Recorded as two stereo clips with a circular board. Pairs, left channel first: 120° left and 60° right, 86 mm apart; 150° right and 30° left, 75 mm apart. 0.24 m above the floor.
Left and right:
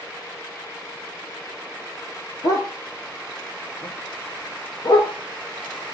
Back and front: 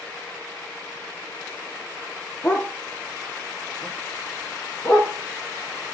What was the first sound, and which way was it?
A dog barking, 150° left.